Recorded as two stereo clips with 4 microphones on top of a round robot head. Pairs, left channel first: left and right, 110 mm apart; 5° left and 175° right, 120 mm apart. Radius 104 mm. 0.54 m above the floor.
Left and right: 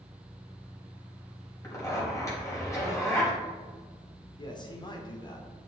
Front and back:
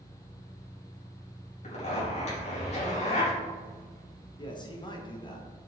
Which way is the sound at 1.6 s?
30° left.